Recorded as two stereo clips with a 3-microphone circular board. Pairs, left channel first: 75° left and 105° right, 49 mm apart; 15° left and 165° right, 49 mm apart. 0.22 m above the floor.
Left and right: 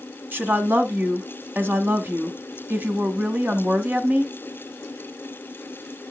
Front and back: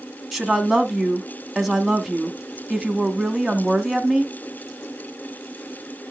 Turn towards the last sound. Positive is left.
turn(degrees=-75)